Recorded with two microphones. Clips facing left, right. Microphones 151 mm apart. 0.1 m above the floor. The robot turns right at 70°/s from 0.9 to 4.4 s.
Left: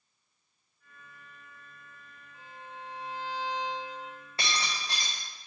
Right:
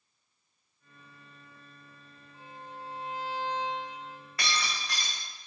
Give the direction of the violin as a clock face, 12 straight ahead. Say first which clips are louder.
Right 1 dB; 2 o'clock.